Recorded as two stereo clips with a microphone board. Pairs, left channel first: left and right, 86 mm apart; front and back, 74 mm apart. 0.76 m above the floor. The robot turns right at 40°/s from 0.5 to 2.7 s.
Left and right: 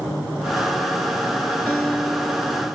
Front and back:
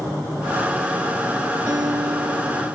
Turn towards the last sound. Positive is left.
turn(degrees=-165)